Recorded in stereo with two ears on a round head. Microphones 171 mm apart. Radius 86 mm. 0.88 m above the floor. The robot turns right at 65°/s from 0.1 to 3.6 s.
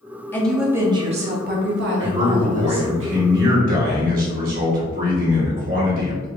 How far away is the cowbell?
No cowbell in this recording.